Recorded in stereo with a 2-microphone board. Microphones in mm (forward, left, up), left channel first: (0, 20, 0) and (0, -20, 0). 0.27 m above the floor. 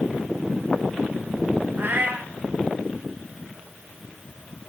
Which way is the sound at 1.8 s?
50° right (ahead or behind).